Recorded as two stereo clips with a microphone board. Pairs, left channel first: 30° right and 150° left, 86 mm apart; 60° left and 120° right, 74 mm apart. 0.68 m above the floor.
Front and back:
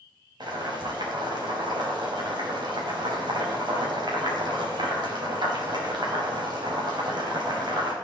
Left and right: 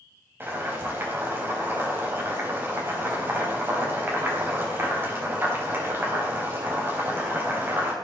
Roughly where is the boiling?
Behind.